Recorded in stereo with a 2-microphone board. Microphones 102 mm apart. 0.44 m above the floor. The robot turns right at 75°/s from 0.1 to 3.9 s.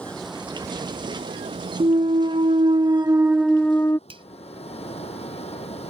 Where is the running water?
170° left; by 5.9 s 95° left.